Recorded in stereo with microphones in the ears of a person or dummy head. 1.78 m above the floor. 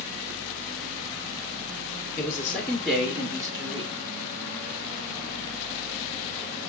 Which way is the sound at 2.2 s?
20° left (ahead or behind).